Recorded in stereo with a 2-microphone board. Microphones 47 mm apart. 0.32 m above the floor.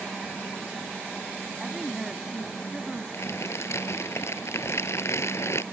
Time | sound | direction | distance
1.6 | a woman speaking | 10° right (ahead or behind) | ?
3.1 | crumpling | 70° left (ahead or behind) | ?